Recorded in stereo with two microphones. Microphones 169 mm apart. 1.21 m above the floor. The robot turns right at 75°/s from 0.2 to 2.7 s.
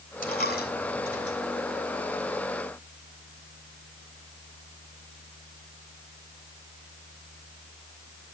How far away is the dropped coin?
About 3.5 m.